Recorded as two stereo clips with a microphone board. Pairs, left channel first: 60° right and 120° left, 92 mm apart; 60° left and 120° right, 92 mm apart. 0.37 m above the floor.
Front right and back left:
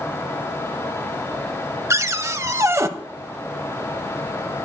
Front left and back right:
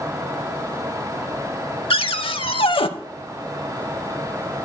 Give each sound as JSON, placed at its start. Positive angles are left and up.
{"t": 1.9, "sound": "a cupboard door", "azimuth_deg": 60, "distance_m": 0.5}